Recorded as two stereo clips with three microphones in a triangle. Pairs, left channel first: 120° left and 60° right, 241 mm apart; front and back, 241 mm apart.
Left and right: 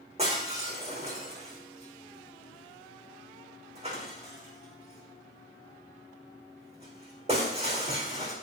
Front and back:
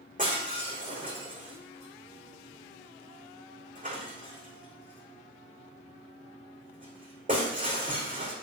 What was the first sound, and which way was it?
Breaking glass, 125° right.